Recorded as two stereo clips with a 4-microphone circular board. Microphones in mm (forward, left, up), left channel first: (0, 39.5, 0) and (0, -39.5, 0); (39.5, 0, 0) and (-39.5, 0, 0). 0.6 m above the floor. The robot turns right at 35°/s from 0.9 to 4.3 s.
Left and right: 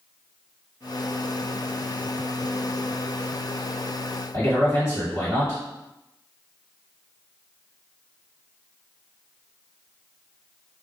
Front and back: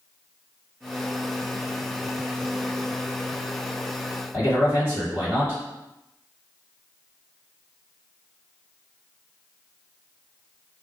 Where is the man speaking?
130° left, 1.8 m.